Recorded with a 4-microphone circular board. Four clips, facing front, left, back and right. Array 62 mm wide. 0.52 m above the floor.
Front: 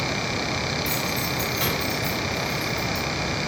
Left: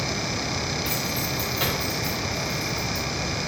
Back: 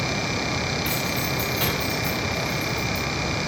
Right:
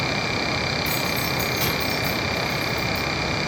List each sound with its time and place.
0.8 s keys jangling: 175° left, 0.8 m; by 3.0 s 60° left, 1.3 m